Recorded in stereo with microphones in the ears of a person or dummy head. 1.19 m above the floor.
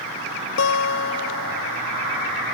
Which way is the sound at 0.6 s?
70° left (ahead or behind).